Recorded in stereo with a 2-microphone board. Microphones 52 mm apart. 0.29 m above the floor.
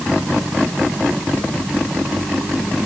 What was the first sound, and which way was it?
Only background noise.